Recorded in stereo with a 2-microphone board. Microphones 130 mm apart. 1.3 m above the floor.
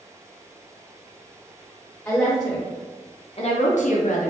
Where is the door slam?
I don't hear a door slam.